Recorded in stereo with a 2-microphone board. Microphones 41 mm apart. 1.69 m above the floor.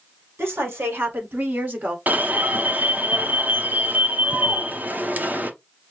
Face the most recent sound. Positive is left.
turn(degrees=-40)  # may be behind; listen again after turning